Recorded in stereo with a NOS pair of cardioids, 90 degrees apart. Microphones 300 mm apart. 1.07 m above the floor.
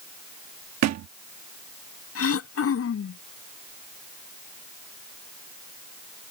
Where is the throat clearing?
50° left.